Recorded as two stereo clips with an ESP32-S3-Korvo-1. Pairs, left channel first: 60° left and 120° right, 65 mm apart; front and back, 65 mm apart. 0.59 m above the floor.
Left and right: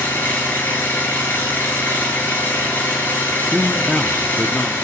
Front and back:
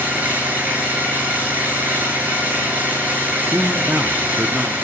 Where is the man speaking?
140° left, 0.8 m.